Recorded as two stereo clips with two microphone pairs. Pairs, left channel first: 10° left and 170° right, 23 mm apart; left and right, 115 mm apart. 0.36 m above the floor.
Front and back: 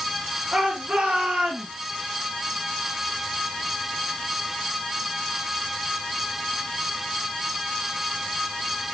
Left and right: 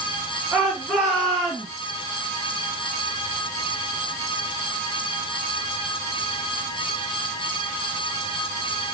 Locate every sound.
0.5 s a shout: 175° right, 5.5 m; by 1.7 s 175° left, 5 m